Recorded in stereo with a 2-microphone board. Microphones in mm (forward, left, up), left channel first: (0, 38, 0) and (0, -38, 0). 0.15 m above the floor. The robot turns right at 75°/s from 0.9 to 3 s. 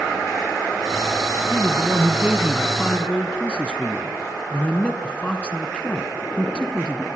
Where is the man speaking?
90° right, 1.4 m; by 7.1 s 20° left, 1.4 m.